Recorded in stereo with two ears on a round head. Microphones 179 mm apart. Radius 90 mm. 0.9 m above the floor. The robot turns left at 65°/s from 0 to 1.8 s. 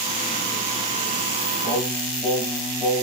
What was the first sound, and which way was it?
Singing, 15° left (ahead or behind).